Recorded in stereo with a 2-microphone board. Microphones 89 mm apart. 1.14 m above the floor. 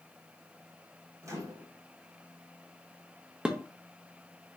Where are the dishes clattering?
10° right (ahead or behind), 0.7 m.